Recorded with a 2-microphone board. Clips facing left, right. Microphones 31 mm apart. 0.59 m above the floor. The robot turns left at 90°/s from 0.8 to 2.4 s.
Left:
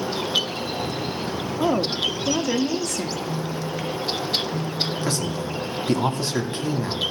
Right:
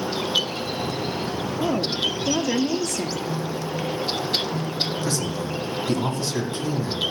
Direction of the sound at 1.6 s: 65° left.